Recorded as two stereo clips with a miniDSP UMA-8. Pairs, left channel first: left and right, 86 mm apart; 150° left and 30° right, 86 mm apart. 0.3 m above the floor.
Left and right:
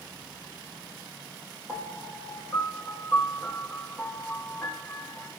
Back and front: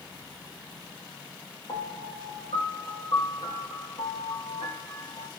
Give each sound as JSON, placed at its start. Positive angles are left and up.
{"t": 1.7, "sound": "a piano", "azimuth_deg": 170, "distance_m": 3.0}